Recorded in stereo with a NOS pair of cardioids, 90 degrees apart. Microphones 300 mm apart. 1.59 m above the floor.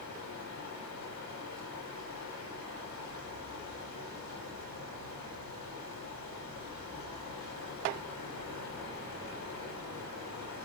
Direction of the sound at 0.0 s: 65° left.